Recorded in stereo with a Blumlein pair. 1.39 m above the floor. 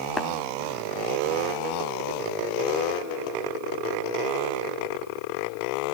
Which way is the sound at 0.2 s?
15° left.